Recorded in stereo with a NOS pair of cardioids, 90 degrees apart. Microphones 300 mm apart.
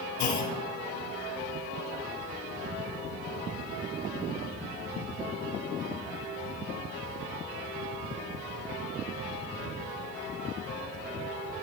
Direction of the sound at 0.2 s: 70° left.